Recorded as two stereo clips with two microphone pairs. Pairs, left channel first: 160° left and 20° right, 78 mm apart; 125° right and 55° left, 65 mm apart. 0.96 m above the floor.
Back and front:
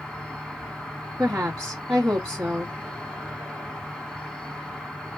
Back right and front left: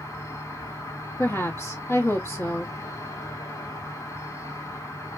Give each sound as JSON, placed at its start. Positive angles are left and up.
{"t": 0.0, "sound": "an insect", "azimuth_deg": -125, "distance_m": 1.1}
{"t": 1.2, "sound": "a woman speaking", "azimuth_deg": -95, "distance_m": 1.0}